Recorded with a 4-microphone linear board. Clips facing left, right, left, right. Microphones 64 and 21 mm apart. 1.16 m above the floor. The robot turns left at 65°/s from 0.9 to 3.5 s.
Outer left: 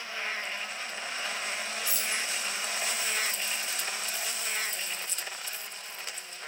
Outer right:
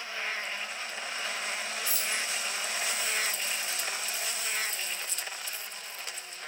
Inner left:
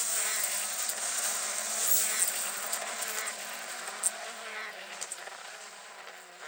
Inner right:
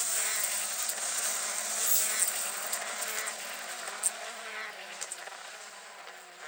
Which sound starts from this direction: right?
Keys jangling, at 1.9 s.